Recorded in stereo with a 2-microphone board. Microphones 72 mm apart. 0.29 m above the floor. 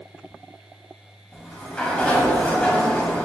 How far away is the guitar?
I don't hear a guitar.